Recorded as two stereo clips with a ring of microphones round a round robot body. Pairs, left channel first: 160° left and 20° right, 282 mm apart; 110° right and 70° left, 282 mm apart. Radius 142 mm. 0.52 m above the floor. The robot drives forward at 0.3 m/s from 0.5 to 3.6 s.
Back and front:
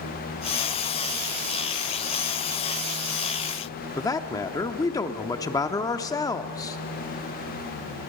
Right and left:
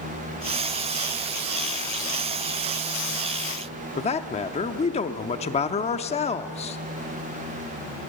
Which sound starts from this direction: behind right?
A man speaking, at 4.0 s.